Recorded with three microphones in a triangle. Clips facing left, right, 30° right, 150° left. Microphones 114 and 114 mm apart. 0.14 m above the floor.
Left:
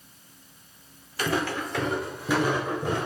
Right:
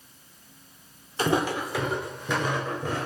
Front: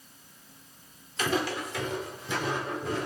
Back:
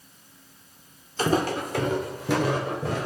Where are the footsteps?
150° right, 0.6 m; by 3.1 s 165° left, 1.5 m.